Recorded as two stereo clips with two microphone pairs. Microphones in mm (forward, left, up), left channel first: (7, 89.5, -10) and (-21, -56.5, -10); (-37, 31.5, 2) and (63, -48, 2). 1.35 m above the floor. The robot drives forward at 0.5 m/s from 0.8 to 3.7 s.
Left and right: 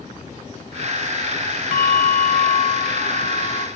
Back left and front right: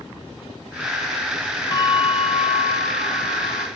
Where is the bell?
80° left, 0.9 m; by 3.7 s 135° left, 1.3 m.